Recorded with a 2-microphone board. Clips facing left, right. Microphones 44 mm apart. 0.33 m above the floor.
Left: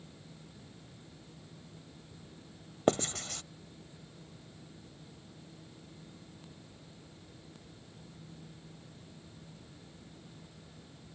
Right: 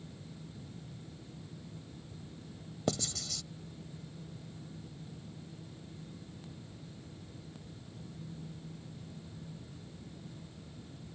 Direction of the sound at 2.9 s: 45° left (ahead or behind).